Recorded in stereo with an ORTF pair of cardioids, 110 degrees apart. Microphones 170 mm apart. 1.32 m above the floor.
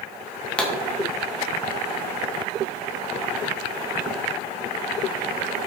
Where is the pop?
5° left, 0.9 m.